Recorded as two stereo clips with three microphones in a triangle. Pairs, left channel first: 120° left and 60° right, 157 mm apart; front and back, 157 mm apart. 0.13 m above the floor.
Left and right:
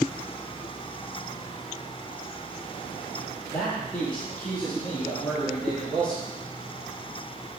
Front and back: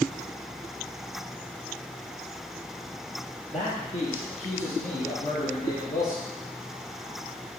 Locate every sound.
3.5 s a man speaking: 40° left, 3.5 m; by 6.2 s 35° left, 6 m